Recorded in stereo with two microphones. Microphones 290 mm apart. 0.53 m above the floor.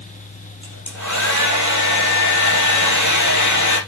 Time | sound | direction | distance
0.6 | a hair dryer | 85° left | 3.5 m